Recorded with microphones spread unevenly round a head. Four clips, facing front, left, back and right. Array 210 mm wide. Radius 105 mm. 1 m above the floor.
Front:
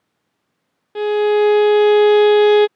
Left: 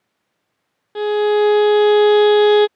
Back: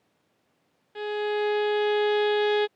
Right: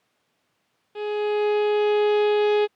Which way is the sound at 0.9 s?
30° left.